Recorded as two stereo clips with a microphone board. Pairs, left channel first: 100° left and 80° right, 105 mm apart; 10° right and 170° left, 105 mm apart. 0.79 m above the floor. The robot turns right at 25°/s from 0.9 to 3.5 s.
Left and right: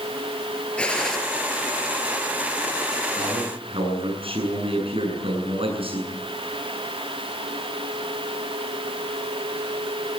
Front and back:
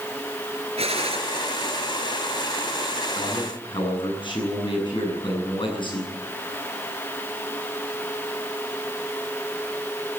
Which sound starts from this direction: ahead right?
A man speaking, at 3.1 s.